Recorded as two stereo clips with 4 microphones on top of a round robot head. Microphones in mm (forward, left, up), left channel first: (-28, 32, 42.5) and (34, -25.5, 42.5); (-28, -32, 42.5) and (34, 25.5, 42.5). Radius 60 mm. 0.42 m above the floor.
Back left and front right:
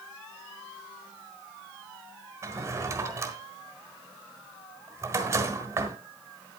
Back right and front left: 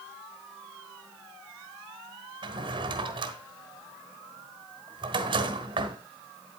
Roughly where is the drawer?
Ahead.